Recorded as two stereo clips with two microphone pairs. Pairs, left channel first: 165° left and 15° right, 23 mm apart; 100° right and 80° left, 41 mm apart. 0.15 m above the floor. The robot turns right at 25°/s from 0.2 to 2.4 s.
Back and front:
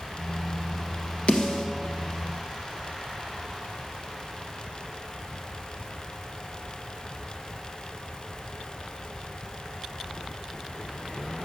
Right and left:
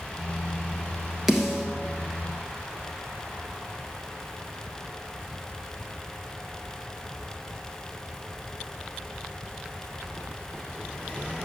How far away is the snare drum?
About 1.6 m.